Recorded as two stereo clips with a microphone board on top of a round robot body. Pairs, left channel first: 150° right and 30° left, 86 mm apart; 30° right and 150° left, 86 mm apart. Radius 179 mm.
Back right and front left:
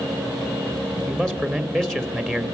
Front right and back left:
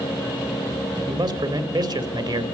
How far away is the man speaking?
About 2.5 m.